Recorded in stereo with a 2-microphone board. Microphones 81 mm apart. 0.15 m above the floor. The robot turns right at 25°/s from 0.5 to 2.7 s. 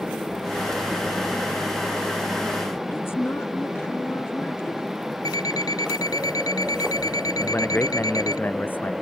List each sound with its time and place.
2.9 s a woman speaking: 30° left (ahead or behind)
5.2 s an alarm clock: 50° left (ahead or behind)
7.4 s a man speaking: 25° left (ahead or behind)